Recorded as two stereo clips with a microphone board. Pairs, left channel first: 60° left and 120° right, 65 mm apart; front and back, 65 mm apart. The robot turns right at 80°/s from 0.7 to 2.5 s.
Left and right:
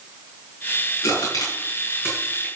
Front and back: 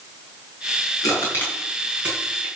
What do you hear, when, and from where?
1.0 s crushing: 30° left, 7 m; by 2.5 s 145° left, 7 m